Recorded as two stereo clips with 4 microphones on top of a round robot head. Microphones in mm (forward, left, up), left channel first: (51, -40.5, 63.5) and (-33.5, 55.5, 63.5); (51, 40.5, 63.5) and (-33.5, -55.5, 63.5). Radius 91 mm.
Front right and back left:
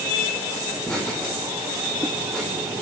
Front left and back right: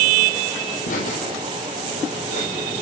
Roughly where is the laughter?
Ahead left.